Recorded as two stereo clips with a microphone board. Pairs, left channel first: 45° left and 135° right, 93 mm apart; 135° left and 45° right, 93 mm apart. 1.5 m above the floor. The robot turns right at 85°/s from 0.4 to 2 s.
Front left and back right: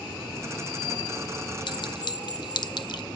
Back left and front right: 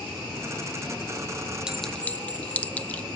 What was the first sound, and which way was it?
A clink, 35° left.